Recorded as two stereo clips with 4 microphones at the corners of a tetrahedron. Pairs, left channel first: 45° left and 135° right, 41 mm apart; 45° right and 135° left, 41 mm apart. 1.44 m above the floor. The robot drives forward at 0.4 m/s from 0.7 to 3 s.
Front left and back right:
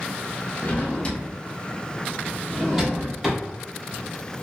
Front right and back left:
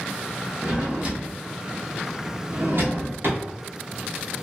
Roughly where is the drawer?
Left.